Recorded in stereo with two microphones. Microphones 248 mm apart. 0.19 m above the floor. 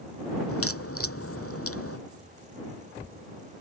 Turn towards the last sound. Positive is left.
turn(degrees=65)  # may be behind; listen again after turning